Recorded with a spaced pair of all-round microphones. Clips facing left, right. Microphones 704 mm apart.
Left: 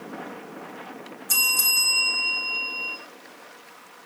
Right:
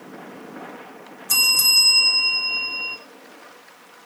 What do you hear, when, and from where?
1.3 s a bell: 30° right (ahead or behind), 2.5 m